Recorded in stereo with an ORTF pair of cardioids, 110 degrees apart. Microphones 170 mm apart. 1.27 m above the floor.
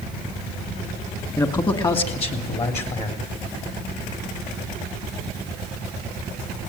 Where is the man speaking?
20° left, 2 m; by 3.2 s 45° left, 4 m.